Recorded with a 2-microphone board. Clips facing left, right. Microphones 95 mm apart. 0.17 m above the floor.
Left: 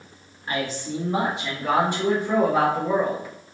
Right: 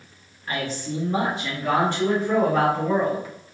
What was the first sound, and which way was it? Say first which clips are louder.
A man speaking: left 1 dB; 15° left (ahead or behind).